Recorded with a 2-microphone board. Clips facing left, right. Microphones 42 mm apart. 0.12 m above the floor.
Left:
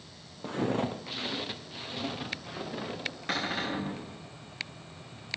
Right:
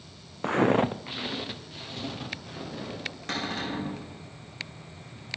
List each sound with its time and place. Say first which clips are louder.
0.4 s footsteps: right 7 dB; 85° right, 0.5 m; by 3.2 s 15° left (ahead or behind), 3 m
3.3 s a cupboard door: even; 10° left (ahead or behind), 2.5 m